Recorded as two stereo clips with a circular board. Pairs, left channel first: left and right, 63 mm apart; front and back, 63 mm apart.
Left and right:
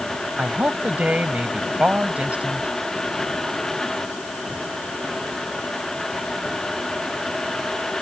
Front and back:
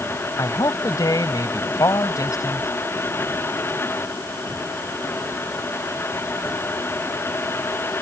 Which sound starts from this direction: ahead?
A man speaking, at 0.4 s.